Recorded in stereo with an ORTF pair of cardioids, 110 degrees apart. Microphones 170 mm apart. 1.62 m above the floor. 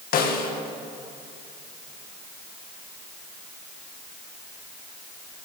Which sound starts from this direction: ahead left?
A snare drum, at 0.1 s.